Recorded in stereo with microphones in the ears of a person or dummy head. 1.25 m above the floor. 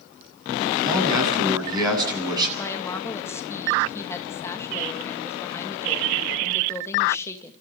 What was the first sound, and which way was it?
A man speaking, 20° right (ahead or behind).